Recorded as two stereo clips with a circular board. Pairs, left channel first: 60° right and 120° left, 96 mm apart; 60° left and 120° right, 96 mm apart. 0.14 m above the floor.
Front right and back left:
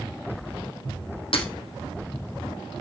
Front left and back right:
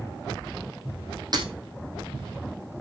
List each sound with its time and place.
1.3 s breaking glass: 80° right, 3.5 m